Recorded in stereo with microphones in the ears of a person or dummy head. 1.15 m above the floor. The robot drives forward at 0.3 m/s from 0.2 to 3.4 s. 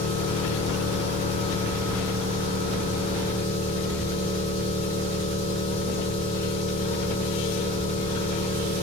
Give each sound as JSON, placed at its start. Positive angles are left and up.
{"t": 0.0, "sound": "an engine running", "side_deg": 40, "distance_m": 1.3}